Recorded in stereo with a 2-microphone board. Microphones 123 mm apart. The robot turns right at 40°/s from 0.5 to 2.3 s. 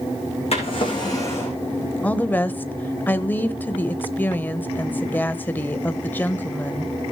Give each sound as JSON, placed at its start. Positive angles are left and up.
{"t": 0.5, "sound": "a drawer", "azimuth_deg": 125, "distance_m": 4.5}
{"t": 2.0, "sound": "a woman speaking", "side_deg": 10, "distance_m": 0.9}